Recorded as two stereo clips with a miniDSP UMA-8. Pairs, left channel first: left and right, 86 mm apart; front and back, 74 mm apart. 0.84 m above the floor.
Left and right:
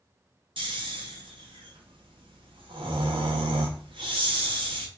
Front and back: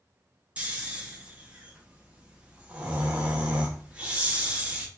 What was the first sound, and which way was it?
Snoring, 105° right.